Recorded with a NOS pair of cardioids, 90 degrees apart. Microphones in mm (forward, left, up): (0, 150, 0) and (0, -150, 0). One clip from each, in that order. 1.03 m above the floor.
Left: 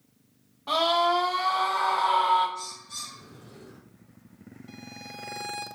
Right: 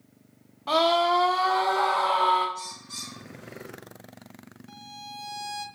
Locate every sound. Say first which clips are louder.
0.7 s a scream: right 1 dB; 20° right, 0.8 m; by 2.5 s 40° right, 1.8 m
2.5 s a bird: even; 25° right, 2 m
4.7 s a violin: right 2 dB; straight ahead, 0.6 m